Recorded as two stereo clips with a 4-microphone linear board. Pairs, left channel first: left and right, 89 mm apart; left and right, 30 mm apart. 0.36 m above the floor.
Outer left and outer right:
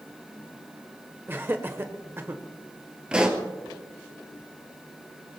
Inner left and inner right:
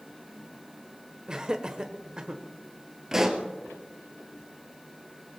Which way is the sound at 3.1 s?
10° right (ahead or behind).